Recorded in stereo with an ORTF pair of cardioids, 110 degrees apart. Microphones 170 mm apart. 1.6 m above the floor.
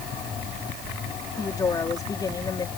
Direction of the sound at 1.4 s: 20° left.